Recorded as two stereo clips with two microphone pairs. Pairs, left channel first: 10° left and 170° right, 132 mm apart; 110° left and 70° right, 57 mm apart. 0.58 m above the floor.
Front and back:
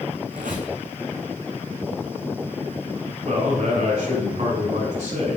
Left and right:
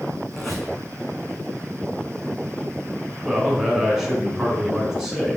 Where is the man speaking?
145° right, 2.5 m.